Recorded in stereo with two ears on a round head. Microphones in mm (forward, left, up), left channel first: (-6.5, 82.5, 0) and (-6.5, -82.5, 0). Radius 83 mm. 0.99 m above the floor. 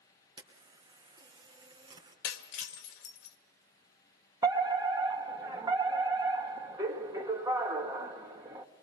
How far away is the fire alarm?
About 1.4 m.